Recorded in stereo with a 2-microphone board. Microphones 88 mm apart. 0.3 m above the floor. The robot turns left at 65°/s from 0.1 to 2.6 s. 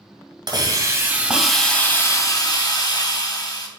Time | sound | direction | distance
0.5 | a hiss | 110° right | 2.0 m